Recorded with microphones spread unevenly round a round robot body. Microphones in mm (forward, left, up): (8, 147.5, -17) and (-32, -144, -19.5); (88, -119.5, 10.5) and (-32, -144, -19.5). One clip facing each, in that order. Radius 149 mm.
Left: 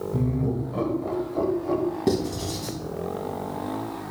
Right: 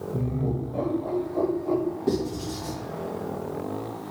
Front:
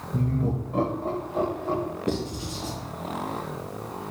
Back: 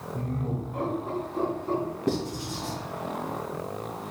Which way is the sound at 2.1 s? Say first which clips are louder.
Left 2 dB, even; 120° left.